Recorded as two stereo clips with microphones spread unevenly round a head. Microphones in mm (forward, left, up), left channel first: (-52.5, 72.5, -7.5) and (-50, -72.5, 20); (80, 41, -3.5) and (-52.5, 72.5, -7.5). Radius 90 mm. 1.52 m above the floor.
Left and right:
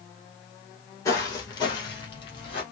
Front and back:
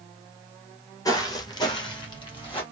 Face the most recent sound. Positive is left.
turn(degrees=25)